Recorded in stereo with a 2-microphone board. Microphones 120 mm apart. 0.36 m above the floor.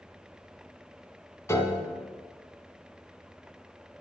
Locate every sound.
1.5 s a piano: 25° left (ahead or behind), 1.2 m